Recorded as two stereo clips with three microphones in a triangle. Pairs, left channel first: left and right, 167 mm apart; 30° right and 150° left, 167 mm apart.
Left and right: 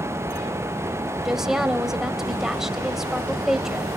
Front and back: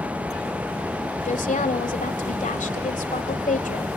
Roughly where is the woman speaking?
Ahead.